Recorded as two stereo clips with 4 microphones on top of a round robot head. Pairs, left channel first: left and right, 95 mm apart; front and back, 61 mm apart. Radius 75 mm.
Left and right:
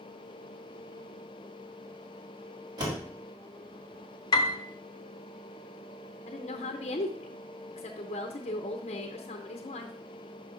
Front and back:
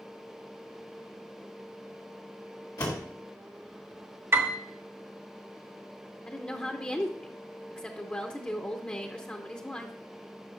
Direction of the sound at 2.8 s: 40° right.